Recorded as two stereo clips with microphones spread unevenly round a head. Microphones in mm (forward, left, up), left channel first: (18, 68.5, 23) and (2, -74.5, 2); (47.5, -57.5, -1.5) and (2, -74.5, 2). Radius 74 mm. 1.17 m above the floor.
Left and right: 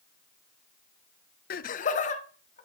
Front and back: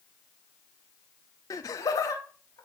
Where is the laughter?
60° left, 0.5 m; by 2.7 s 40° left, 2 m.